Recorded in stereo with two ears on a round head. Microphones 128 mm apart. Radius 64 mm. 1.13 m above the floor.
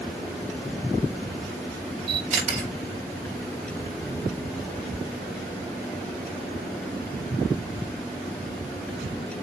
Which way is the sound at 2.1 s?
50° right (ahead or behind).